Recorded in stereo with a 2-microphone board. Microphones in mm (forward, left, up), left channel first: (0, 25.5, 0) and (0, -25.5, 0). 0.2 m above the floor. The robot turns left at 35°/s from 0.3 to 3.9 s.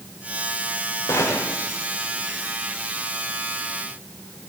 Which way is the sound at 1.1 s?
90° left.